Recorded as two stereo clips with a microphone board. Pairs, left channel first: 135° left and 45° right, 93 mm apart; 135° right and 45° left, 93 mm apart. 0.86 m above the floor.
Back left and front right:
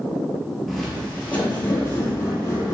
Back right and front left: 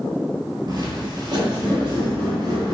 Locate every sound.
0.7 s footsteps: 45° left, 1.1 m; by 2.8 s 80° left, 2 m